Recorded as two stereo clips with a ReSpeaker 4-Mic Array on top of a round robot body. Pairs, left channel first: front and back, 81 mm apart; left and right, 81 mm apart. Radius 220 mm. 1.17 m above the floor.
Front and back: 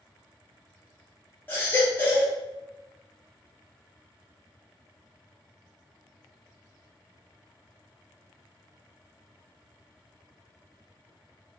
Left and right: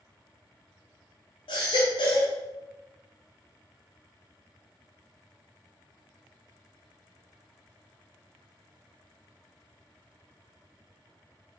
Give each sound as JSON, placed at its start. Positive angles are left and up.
{"t": 1.5, "sound": "a baby crying", "azimuth_deg": 70, "distance_m": 0.7}